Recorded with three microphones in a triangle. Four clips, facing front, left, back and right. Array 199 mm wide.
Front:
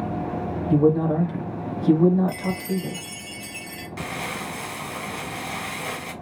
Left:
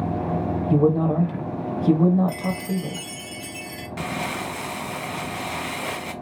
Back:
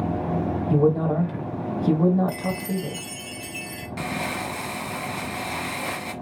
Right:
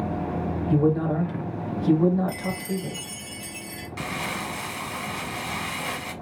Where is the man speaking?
120° left, 0.9 m.